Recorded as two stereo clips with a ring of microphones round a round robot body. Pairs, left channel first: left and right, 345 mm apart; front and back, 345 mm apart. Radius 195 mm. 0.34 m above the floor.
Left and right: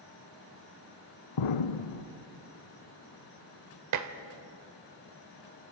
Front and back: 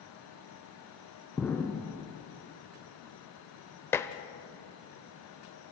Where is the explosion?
85° left, 0.9 m.